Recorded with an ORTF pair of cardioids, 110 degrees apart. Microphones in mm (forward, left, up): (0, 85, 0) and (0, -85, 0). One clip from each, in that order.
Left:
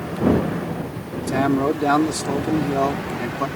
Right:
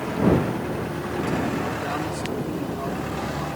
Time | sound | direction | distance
1.3 | a man speaking | 70° left | ?